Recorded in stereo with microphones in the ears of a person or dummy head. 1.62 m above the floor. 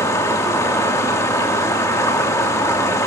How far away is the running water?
About 3 m.